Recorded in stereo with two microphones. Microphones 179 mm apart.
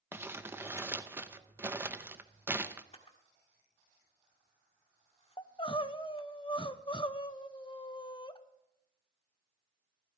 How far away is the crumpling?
About 0.7 m.